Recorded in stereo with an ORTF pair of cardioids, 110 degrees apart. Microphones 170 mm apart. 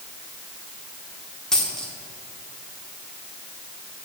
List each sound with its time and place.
1.5 s a dropped coin: 5° left, 1.7 m